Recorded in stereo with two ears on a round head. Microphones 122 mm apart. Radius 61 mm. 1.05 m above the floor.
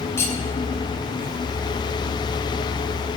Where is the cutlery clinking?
20° left (ahead or behind), 4.5 m.